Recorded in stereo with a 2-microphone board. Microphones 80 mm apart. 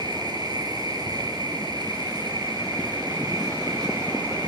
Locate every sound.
0.0 s an insect: 60° right (ahead or behind), 5.5 m